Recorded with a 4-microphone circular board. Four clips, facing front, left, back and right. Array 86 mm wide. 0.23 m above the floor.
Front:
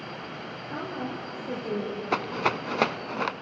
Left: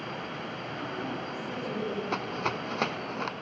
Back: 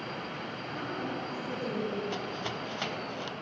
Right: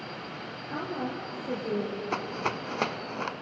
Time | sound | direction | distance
0.7 | a woman speaking | 45° right | 6.5 m
2.1 | a rattle | 5° right | 0.6 m